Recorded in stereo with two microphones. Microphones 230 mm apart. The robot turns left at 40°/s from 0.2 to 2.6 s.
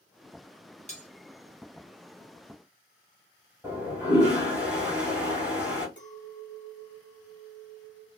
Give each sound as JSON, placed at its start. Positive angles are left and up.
{"t": 0.9, "sound": "cutlery clinking", "side_deg": 30, "distance_m": 0.9}
{"t": 3.6, "sound": "a toilet flushing", "side_deg": -5, "distance_m": 2.5}
{"t": 6.0, "sound": "a clink", "side_deg": 30, "distance_m": 1.7}